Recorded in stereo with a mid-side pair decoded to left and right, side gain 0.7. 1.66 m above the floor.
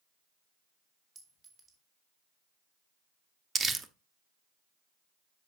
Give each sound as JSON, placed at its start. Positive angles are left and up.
{"t": 1.1, "sound": "a clink", "azimuth_deg": -30, "distance_m": 3.5}
{"t": 3.5, "sound": "crumpling", "azimuth_deg": -25, "distance_m": 1.0}